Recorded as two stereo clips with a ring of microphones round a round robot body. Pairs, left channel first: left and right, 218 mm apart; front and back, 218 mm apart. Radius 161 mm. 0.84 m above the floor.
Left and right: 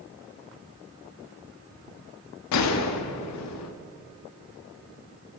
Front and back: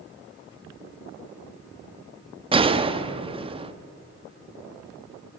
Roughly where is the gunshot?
Left.